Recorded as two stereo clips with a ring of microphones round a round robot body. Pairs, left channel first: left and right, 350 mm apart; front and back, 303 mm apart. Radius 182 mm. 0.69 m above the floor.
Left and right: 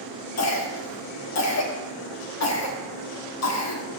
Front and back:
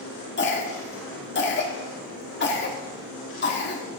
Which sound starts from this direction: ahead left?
A cough, at 0.4 s.